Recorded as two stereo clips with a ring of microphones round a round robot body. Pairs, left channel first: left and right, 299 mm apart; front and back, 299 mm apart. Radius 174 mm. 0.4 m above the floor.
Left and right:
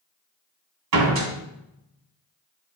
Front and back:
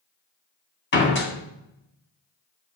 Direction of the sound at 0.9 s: 55° right.